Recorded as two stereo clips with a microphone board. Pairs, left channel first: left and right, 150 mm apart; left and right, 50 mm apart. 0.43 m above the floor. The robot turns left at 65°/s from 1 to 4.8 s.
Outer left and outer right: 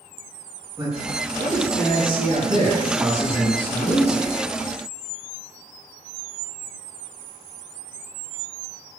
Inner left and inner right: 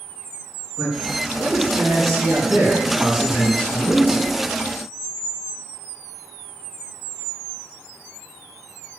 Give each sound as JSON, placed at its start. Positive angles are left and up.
{"t": 0.8, "sound": "a man speaking", "azimuth_deg": -20, "distance_m": 6.0}